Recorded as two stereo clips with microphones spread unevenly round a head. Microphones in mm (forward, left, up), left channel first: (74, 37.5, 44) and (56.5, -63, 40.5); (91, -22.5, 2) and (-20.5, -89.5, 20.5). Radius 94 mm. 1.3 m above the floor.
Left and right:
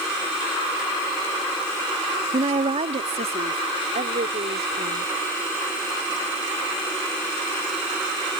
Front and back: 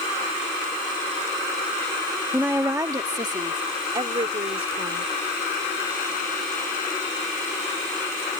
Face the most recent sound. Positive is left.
turn(degrees=-110)